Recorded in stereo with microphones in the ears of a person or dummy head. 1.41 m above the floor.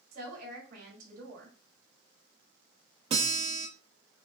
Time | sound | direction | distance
0.1 | a woman speaking | 55° right (ahead or behind) | 3 m
3.1 | a guitar | 35° right (ahead or behind) | 1.3 m